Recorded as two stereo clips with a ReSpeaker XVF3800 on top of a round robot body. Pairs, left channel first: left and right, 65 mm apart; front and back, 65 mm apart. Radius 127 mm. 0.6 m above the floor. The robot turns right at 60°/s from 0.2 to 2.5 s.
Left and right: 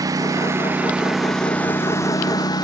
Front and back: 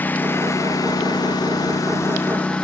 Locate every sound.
0.0 s a lawn mower: 60° right; by 2.6 s 75° left